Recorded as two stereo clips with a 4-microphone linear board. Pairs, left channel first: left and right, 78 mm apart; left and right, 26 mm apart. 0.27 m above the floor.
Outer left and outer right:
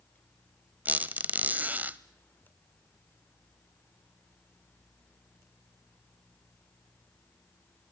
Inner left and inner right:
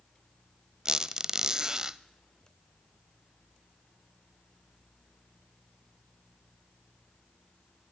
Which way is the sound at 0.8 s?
25° right (ahead or behind).